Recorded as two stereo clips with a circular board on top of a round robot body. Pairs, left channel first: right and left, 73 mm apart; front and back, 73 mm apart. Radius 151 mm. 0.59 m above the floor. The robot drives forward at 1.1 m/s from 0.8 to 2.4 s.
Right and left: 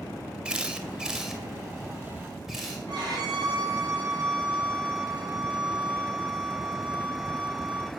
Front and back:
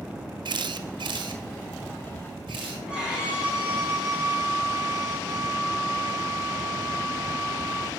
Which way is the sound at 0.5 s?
165° left.